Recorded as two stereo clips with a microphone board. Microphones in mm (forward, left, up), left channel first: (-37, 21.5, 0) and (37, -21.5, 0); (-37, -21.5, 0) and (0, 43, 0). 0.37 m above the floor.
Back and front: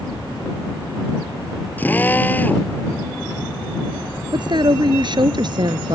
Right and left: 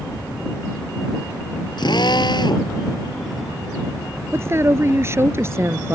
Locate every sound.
1.8 s a drill: 140° right
4.3 s a woman speaking: 5° left